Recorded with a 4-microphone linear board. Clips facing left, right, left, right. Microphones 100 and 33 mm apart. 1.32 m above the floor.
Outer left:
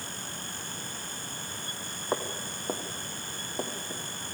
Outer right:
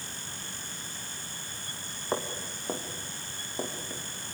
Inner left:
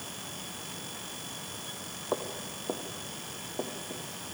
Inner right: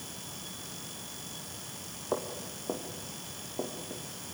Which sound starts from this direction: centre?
Footsteps, at 2.1 s.